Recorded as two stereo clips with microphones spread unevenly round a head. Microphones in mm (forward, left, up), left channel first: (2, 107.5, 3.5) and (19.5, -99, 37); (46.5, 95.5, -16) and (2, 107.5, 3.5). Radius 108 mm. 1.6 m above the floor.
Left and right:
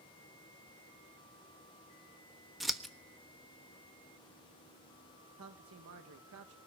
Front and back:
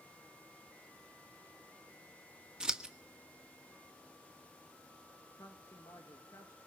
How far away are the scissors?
About 1.1 m.